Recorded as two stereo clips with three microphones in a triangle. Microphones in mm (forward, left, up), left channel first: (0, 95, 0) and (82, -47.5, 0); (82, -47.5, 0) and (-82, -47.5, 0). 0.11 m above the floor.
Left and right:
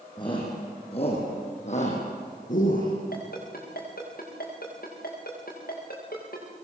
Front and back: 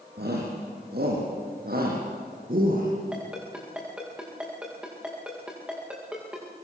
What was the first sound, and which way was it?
A shout, straight behind.